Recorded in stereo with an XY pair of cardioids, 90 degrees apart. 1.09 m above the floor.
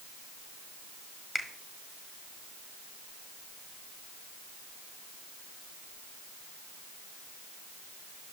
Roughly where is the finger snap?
Ahead.